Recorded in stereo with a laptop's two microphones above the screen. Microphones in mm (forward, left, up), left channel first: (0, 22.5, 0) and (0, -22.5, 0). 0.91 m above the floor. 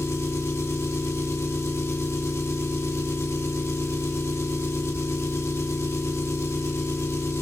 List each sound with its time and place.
0.0 s an engine running: 85° left, 1.1 m